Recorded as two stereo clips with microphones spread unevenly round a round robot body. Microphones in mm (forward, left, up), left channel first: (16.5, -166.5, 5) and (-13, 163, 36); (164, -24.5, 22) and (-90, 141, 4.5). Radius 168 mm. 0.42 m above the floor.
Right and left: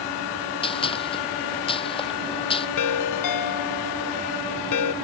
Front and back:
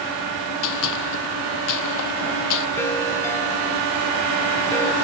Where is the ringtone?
115° right.